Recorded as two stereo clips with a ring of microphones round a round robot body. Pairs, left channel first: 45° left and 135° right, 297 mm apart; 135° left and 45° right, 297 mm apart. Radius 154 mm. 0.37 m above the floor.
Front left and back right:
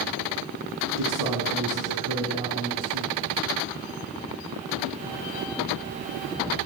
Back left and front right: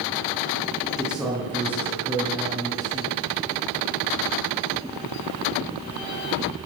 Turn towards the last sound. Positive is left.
turn(degrees=-120)